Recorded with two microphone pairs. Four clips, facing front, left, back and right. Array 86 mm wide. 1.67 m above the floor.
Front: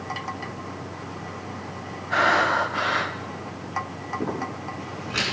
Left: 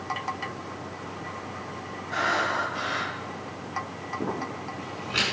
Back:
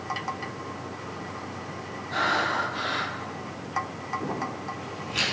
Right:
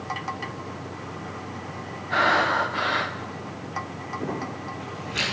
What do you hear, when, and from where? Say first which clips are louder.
2.1 s breathing: right 5 dB, front 5 dB; 35° right, 1.3 m
4.2 s crumpling: even, front 4 dB; 30° left, 6 m